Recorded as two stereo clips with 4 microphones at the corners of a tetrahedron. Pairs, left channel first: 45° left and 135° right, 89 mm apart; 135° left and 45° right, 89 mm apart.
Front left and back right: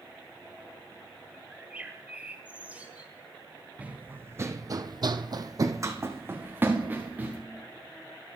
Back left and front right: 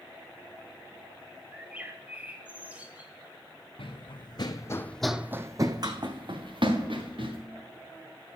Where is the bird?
90° right, 1.3 m.